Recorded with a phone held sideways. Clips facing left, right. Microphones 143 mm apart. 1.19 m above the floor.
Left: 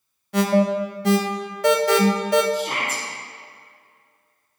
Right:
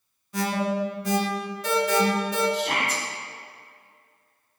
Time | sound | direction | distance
0.3 | an alarm | 70° left (ahead or behind) | 0.8 m
2.5 | a shout | 75° right (ahead or behind) | 2.0 m